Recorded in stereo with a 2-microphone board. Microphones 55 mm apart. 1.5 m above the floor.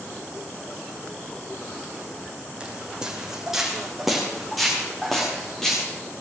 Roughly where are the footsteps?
Centre.